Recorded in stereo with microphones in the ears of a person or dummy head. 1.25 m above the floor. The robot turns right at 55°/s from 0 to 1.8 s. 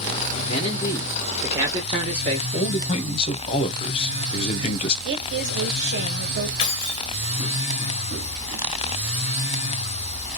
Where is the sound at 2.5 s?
30° left (ahead or behind), 0.6 m.